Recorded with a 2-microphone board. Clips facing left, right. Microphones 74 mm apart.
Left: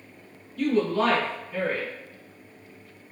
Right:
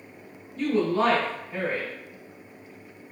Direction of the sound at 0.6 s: 30° right (ahead or behind).